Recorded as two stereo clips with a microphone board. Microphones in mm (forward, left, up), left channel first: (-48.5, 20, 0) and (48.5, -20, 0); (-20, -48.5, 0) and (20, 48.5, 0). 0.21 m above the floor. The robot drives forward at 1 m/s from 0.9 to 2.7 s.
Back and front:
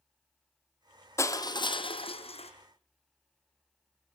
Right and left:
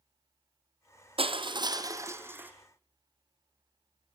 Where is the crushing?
95° left, 1.1 m; by 2.5 s 140° left, 1.8 m.